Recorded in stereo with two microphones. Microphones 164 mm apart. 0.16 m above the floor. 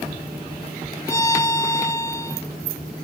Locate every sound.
1.1 s a violin: 20° left (ahead or behind)